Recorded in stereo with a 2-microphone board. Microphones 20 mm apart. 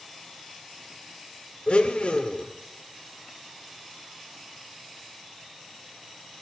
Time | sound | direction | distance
1.7 | a blender | 65° left (ahead or behind) | 0.6 m